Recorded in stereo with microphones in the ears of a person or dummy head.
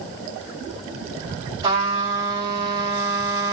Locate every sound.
1.6 s a trumpet: 25° right (ahead or behind), 2 m